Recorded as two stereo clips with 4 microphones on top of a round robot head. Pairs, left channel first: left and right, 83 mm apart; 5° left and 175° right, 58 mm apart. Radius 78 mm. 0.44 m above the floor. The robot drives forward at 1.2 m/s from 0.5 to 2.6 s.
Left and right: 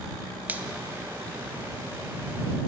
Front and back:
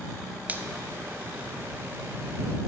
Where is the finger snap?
140° right, 0.6 m; by 0.7 s 155° right, 0.7 m.